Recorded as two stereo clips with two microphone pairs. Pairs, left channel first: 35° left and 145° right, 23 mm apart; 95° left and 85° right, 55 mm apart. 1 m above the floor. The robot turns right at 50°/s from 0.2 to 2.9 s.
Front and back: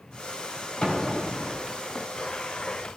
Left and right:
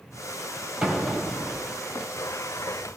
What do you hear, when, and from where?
0.8 s an explosion: 10° right, 4.5 m; by 1.7 s 35° left, 4.5 m